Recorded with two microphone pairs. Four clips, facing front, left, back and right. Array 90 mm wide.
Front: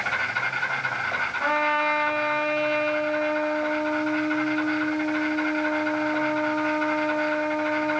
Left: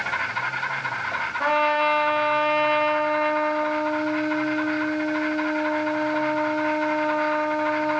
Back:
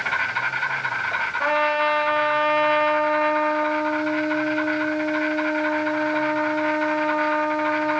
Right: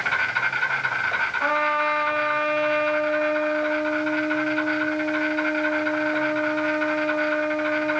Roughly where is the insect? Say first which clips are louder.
Right 3 dB, back 2 dB; behind right.